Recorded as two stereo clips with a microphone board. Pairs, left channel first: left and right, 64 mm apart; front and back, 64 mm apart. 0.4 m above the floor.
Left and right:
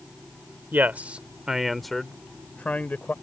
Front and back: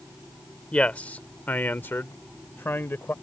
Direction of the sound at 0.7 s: 60° right.